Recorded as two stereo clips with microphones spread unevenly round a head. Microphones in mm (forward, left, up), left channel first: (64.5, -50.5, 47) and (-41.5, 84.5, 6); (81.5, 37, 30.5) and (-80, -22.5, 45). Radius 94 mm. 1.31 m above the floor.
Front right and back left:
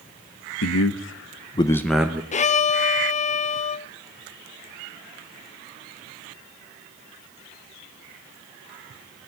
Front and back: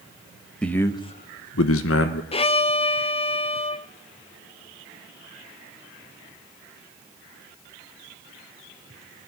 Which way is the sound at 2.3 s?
5° right.